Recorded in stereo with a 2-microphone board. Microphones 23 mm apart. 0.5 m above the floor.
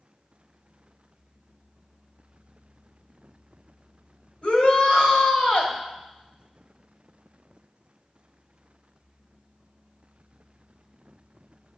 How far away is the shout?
About 2 m.